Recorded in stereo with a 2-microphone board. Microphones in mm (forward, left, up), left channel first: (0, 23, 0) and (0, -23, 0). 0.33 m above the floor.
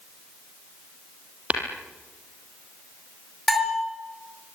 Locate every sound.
1.5 s tapping: 30° right (ahead or behind), 4 m
3.5 s a bell: centre (ahead or behind), 4.5 m